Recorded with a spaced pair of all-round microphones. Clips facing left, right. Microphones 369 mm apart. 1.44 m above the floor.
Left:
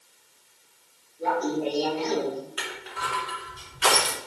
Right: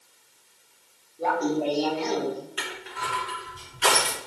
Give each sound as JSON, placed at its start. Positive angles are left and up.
{"t": 1.2, "sound": "laughter", "side_deg": -75, "distance_m": 3.5}
{"t": 2.6, "sound": "crushing", "side_deg": -35, "distance_m": 4.5}